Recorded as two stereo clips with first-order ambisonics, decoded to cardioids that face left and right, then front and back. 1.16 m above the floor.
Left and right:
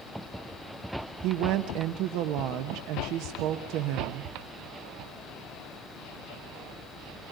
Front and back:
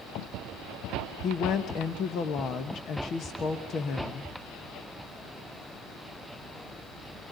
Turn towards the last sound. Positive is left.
turn(degrees=-60)